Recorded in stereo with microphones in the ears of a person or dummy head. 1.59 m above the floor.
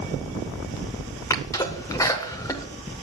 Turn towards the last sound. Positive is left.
turn(degrees=15)  # may be behind; listen again after turning